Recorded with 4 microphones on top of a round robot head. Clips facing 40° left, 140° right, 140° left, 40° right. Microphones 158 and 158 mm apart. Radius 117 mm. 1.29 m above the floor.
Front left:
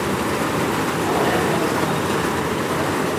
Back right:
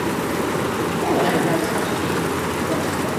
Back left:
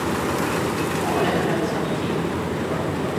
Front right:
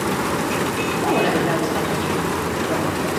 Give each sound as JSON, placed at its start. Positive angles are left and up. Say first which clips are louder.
{"t": 1.0, "sound": "a woman speaking", "louder": "back right 1 dB, front right 3 dB", "azimuth_deg": -90, "distance_m": 2.5}